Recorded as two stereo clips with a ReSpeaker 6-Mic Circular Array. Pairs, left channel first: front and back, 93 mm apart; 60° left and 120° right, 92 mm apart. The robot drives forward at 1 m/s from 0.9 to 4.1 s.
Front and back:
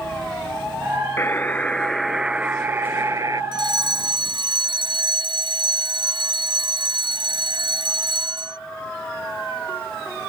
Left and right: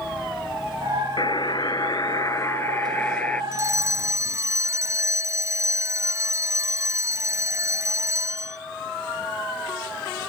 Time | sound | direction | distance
1.2 | a buzzer | 60° left | ?
3.5 | a fire alarm | 165° right | ?